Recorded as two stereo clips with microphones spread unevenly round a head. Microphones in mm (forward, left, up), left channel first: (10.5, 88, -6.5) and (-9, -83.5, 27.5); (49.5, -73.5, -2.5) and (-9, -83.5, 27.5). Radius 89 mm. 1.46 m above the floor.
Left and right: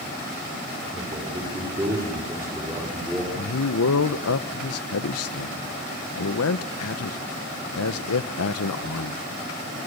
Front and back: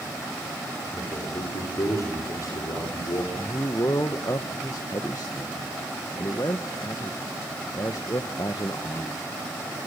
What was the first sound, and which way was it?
A man speaking, 30° right.